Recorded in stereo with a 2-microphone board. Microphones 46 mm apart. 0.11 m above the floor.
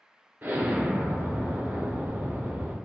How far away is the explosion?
About 0.8 m.